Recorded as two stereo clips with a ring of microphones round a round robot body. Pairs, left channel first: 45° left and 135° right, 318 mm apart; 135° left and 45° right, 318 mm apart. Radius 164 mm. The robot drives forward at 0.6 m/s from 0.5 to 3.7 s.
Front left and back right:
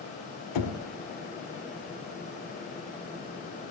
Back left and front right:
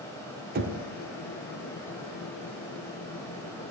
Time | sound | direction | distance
0.6 | knocking | 15° left | 1.5 m